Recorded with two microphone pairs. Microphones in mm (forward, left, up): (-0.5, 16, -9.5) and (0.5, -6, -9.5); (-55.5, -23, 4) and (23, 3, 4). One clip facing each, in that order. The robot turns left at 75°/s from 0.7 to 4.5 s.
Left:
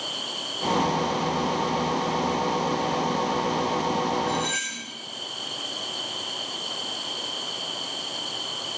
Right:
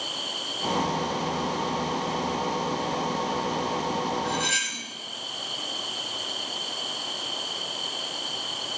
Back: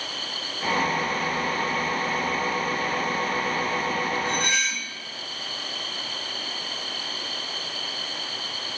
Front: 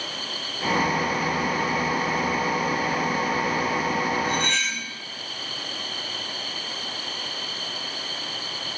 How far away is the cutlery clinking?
About 1.7 m.